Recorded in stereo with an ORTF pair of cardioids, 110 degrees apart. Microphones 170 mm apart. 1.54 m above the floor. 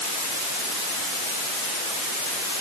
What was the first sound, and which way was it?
Only background noise.